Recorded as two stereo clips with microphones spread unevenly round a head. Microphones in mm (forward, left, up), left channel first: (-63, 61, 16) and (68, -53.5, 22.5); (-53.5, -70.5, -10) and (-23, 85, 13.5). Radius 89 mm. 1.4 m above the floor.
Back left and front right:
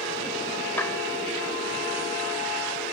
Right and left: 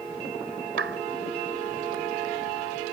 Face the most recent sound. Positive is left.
turn(degrees=60)